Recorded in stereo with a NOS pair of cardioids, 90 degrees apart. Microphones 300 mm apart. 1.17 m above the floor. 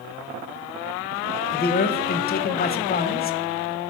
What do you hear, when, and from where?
1.5 s a man speaking: 30° left, 0.6 m